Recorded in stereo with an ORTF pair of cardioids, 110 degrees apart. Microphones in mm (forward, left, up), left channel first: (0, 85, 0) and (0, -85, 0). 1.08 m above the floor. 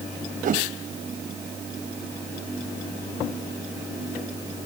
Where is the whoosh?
50° right.